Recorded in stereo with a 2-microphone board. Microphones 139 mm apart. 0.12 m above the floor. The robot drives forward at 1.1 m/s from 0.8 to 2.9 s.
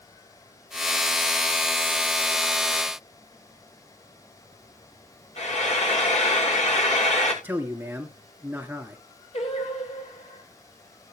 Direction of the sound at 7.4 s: 15° right (ahead or behind).